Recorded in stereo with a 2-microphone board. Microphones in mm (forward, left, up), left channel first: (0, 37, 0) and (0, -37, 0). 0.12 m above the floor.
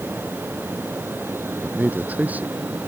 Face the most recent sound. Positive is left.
turn(degrees=-20)  # may be behind; listen again after turning